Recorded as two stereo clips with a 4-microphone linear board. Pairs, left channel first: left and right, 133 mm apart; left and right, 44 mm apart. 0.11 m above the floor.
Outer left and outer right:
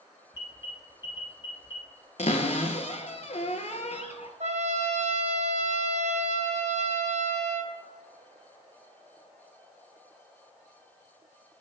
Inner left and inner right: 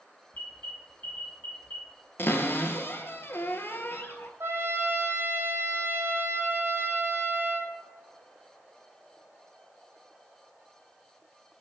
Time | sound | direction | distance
0.3 | an alarm | 35° left (ahead or behind) | 1.0 m
2.2 | a cupboard door | 60° left (ahead or behind) | 0.6 m
4.4 | a trumpet | 65° right (ahead or behind) | 0.7 m